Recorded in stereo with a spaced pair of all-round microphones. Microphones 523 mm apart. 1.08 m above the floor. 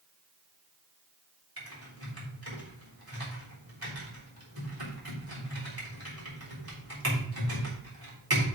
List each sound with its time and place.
1.6 s typing on a keyboard: 40° right (ahead or behind), 3.5 m